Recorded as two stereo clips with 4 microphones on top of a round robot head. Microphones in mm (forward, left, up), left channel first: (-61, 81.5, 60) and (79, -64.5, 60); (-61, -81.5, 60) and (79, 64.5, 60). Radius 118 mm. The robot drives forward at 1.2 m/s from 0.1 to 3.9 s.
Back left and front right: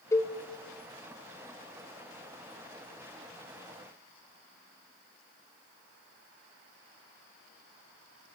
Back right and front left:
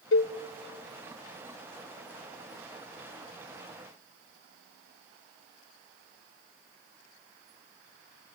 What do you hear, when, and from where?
0.1 s a cowbell: 150° right, 1.6 m; by 0.3 s 155° right, 1.9 m